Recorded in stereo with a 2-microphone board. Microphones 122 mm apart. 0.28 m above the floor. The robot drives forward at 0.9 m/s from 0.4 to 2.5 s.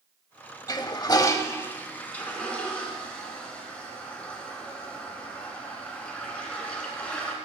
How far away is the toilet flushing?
About 0.5 m.